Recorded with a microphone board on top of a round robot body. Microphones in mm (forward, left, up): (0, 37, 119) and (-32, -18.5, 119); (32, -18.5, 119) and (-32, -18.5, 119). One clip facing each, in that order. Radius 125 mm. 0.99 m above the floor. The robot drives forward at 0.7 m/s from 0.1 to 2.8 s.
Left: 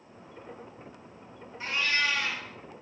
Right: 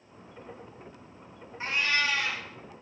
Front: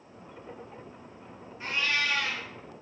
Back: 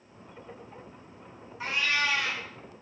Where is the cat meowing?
Straight behind, 0.6 m.